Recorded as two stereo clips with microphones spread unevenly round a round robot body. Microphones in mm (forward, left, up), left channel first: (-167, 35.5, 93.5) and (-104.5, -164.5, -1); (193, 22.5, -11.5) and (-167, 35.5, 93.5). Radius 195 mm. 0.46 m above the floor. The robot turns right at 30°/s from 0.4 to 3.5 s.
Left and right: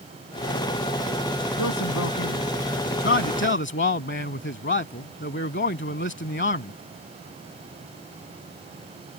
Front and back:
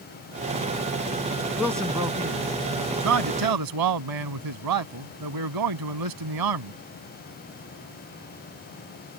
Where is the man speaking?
85° left; by 6.7 s 145° left.